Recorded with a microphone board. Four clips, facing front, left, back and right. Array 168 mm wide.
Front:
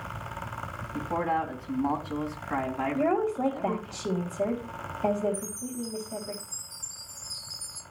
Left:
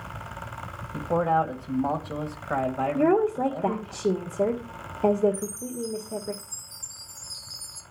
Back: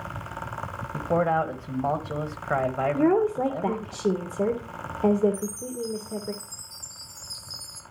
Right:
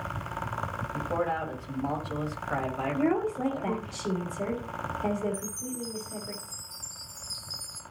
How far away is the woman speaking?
About 1.7 m.